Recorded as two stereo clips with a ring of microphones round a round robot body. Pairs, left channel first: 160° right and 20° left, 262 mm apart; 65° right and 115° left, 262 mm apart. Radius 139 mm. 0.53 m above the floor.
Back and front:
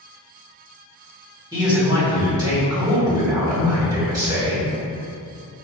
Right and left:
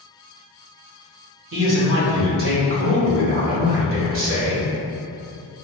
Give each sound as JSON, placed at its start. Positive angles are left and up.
{"t": 1.5, "sound": "a man speaking", "azimuth_deg": 95, "distance_m": 1.5}